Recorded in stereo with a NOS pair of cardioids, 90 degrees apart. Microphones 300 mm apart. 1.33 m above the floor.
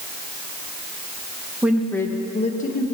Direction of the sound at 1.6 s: 5° right.